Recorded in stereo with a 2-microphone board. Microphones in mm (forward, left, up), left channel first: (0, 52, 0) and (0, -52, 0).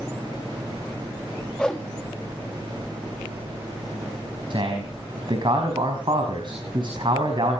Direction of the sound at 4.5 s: 50° right (ahead or behind).